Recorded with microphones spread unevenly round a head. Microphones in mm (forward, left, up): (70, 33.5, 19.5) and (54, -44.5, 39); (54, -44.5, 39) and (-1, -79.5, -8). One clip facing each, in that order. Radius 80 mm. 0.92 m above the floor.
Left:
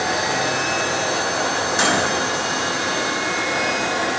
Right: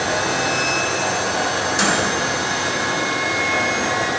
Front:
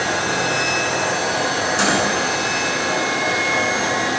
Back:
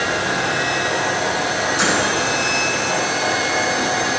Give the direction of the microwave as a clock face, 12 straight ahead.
11 o'clock.